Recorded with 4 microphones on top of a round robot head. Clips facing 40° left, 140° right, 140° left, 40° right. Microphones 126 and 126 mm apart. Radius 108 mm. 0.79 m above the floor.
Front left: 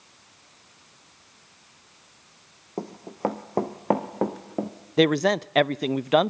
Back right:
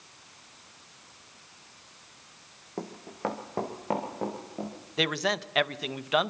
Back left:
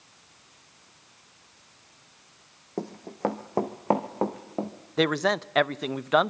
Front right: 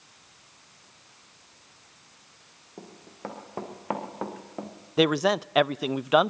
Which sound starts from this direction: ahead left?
A man speaking, at 5.0 s.